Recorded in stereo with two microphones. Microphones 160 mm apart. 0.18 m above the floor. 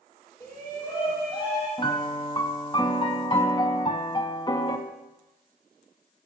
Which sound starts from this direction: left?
A piano, at 1.8 s.